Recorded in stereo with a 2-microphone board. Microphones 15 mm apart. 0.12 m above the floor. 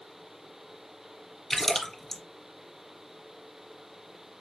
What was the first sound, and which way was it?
A splash, 15° left (ahead or behind).